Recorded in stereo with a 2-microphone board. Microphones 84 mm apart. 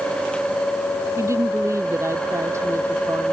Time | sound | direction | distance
1.2 | a woman speaking | 35° right (ahead or behind) | ?